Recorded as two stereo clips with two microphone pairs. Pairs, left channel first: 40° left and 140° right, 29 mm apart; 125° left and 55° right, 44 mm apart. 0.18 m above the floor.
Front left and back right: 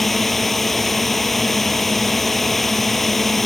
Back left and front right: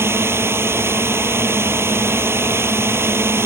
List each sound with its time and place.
0.0 s a drone: 45° right